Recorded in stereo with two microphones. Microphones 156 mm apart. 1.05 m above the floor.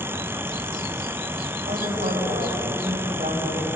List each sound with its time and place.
1.7 s a man speaking: 65° right (ahead or behind), 9.5 m